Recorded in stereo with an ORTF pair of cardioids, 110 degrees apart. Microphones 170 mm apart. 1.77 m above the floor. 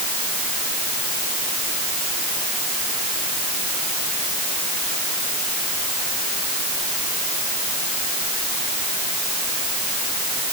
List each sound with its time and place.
Only background noise.